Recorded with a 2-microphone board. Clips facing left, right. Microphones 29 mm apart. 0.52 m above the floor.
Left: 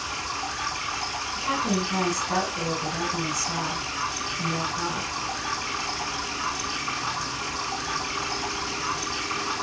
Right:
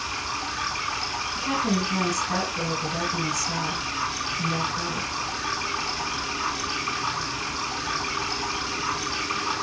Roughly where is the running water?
Right.